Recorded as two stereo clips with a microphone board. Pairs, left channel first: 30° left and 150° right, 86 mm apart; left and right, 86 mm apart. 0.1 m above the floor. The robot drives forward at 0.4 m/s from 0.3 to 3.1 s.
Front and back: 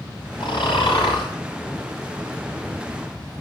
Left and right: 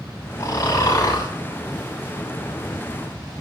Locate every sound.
0.4 s snoring: 35° left, 6 m; by 3.4 s 40° left, 5.5 m